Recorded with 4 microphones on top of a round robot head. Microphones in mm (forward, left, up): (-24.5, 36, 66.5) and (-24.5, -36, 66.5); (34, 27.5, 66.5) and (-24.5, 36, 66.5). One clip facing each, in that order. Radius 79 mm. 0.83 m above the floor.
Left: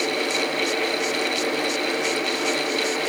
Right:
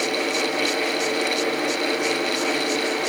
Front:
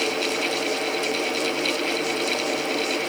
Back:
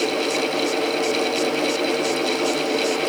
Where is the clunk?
No clunk in this recording.